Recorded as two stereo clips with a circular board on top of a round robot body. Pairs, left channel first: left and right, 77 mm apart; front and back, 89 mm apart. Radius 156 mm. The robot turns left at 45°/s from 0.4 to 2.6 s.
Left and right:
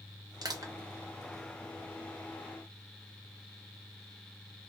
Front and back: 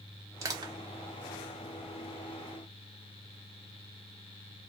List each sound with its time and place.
0.4 s crushing: 125° right, 0.9 m; by 0.7 s 140° right, 0.9 m